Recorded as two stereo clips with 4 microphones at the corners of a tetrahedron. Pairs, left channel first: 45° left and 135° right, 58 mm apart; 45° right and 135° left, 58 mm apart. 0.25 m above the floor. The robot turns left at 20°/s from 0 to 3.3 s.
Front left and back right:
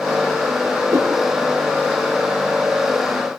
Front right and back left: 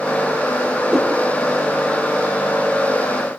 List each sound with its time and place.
0.9 s a whoosh: 150° right, 3.5 m; by 1.1 s 155° right, 3.5 m